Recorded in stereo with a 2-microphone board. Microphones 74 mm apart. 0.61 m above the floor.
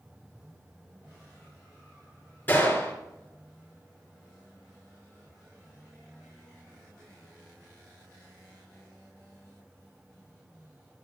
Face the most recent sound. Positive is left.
turn(degrees=25)  # may be behind; listen again after turning